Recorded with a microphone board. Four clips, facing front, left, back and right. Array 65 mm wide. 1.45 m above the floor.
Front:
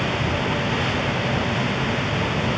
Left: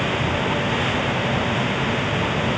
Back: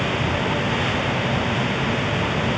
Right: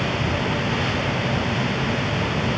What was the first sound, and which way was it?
Only background noise.